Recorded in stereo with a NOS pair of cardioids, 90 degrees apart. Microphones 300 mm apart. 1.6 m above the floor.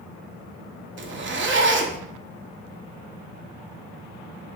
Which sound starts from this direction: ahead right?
A zipper, at 1.0 s.